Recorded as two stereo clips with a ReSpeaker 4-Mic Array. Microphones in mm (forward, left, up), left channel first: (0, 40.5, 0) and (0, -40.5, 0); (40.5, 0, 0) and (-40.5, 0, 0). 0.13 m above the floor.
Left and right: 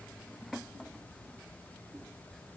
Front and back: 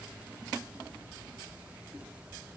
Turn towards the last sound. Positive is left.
No sound to turn to.